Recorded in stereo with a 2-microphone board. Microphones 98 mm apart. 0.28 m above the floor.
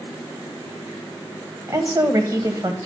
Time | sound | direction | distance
1.7 | a woman speaking | 35° right (ahead or behind) | 1.1 m